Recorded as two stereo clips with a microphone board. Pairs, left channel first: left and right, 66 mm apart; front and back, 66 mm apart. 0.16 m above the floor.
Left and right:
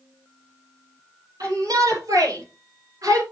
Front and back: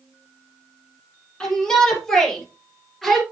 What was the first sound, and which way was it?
A shout, 75° right.